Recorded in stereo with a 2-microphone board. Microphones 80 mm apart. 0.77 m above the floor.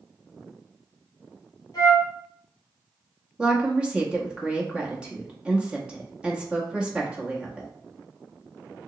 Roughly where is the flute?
Left.